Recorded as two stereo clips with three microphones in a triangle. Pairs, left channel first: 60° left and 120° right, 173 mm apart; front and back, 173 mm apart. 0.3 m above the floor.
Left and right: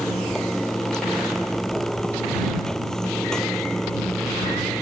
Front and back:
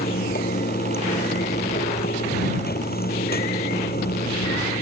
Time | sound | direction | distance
0.0 | running water | 25° right | ?